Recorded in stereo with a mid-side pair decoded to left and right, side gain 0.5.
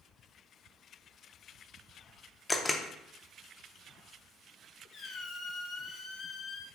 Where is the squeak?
55° left, 0.8 m.